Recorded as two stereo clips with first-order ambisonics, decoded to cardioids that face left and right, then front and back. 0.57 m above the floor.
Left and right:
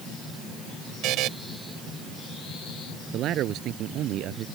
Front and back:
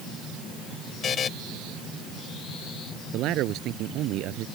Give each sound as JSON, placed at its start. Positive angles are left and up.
{"t": 1.0, "sound": "a buzzer", "azimuth_deg": -60}
{"t": 3.1, "sound": "a man speaking", "azimuth_deg": -140}